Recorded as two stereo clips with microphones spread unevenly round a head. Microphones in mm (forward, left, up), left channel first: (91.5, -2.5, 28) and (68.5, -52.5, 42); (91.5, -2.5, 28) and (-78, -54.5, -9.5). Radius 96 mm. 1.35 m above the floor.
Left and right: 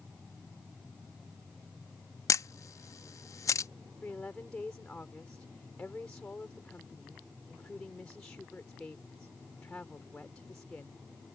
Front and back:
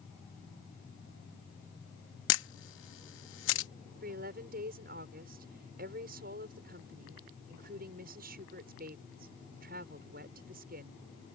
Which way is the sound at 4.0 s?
150° left.